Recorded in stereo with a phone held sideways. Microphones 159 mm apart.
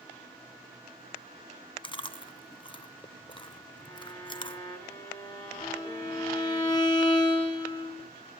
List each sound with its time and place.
1.8 s chewing: 30° left (ahead or behind), 0.7 m
3.8 s a violin: 15° left (ahead or behind), 5 m
5.6 s a violin: 25° left (ahead or behind), 2.5 m